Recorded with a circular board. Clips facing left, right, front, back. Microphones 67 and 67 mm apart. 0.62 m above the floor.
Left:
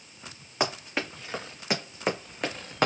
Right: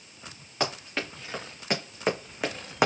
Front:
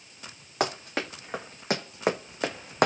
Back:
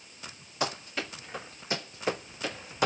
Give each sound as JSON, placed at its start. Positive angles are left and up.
{"t": 0.6, "sound": "running footsteps", "azimuth_deg": 15, "distance_m": 2.0}